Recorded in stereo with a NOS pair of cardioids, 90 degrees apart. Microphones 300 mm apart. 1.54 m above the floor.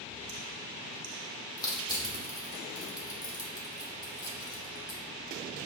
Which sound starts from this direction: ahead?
Crushing, at 1.6 s.